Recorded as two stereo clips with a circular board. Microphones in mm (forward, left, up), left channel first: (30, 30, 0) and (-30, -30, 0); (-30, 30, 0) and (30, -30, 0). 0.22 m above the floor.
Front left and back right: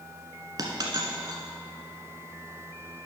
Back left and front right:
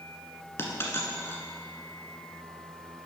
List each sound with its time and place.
0.6 s a dropped coin: 170° right, 1.3 m